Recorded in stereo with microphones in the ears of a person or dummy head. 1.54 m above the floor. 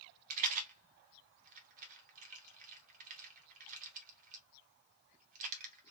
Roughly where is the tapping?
I don't hear tapping.